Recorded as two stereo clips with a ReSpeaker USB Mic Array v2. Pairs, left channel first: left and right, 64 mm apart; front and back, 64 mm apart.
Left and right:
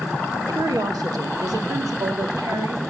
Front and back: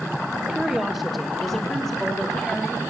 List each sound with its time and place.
0.5 s a woman speaking: 95° right, 1.4 m; by 2.8 s 75° right, 3 m